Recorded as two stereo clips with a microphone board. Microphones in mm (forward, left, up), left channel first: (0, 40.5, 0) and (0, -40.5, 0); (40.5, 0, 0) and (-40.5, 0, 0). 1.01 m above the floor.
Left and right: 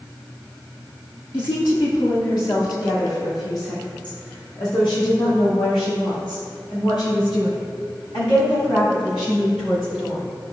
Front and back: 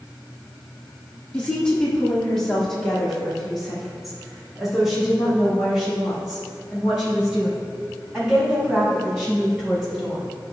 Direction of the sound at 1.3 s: 70° left.